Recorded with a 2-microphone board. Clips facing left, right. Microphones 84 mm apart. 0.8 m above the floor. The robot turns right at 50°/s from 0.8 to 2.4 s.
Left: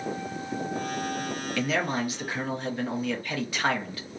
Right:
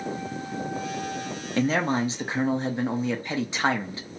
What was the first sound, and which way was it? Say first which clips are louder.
A man speaking: right 5 dB; 90° right.